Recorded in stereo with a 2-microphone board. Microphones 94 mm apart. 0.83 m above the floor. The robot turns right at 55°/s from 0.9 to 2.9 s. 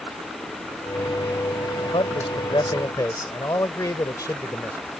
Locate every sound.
1.8 s a man speaking: 80° left; by 4.9 s 140° left